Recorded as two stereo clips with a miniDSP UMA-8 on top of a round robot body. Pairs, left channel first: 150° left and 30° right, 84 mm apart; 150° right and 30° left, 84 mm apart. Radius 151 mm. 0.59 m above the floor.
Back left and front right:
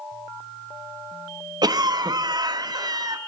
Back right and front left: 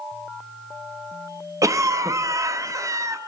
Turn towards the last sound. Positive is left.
turn(degrees=-10)